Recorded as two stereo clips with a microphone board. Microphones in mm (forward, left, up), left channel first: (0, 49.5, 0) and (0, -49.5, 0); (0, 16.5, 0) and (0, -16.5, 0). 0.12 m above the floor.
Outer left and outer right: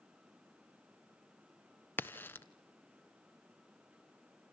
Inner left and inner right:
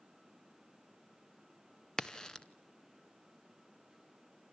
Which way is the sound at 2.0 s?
20° left (ahead or behind).